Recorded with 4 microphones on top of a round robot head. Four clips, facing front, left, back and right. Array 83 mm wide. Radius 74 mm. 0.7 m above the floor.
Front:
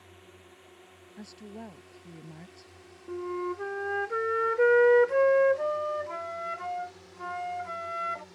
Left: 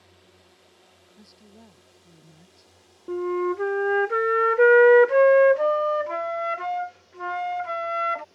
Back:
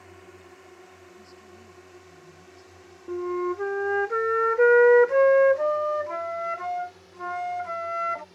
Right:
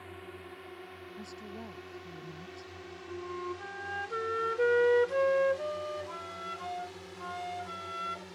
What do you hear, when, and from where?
0.0 s a drone: 120° right; by 8.3 s 85° right
1.2 s a woman speaking: 10° right
3.1 s a flute: 110° left